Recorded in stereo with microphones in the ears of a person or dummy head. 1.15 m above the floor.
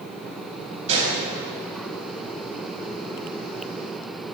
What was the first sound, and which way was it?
A gunshot, 40° right (ahead or behind).